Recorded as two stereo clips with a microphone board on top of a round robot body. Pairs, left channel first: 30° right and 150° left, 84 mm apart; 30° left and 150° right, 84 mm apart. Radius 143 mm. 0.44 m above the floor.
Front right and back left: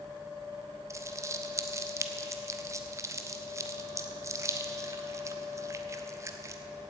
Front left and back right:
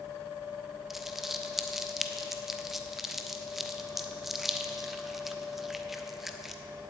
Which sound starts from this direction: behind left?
Crumpling, at 0.9 s.